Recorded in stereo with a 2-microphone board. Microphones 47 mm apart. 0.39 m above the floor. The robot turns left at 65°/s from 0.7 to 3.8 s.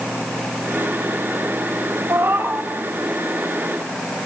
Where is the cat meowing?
110° right, 3 m; by 2.7 s 150° right, 3 m.